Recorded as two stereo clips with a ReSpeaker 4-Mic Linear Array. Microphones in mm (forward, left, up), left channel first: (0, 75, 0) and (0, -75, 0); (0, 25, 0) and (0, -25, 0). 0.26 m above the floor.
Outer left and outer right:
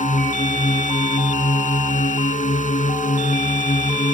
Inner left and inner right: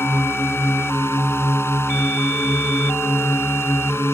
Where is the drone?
60° left (ahead or behind).